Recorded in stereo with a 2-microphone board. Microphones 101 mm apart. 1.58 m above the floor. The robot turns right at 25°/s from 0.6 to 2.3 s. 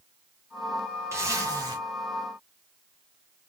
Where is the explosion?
I don't hear an explosion.